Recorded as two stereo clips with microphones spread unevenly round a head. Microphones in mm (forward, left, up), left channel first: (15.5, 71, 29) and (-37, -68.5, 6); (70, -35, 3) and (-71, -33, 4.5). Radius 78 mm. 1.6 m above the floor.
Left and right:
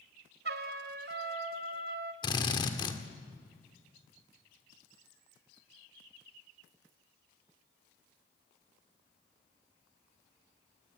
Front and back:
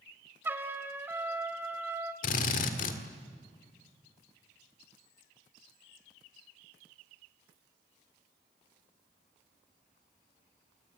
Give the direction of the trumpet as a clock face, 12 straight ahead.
4 o'clock.